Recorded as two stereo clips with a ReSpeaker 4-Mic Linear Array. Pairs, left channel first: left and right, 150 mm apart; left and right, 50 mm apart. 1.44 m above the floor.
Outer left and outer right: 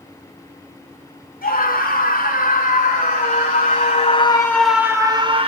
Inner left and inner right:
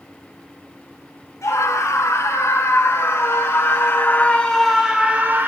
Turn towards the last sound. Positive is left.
turn(degrees=-40)  # may be behind; listen again after turning